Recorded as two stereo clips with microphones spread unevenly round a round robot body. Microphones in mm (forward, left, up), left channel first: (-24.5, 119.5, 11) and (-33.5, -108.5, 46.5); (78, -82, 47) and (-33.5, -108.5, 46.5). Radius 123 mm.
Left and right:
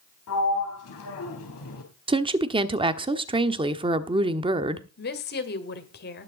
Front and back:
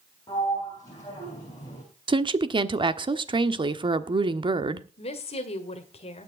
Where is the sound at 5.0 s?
50° left, 1.8 m.